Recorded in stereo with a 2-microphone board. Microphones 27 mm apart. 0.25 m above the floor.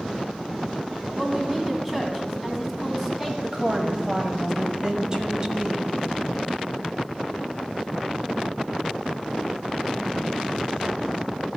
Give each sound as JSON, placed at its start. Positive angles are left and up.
{"t": 1.1, "sound": "a woman speaking", "side_deg": -10, "distance_m": 1.9}
{"t": 3.4, "sound": "a woman speaking", "side_deg": -25, "distance_m": 1.1}